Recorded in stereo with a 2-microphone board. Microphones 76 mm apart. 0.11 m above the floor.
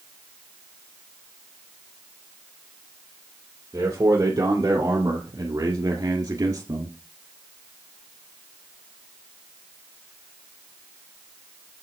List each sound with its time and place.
3.7 s a man speaking: 35° right (ahead or behind), 2.5 m